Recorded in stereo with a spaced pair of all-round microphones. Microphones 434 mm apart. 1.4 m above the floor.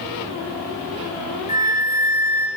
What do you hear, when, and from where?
1.5 s a flute: 50° left (ahead or behind), 0.5 m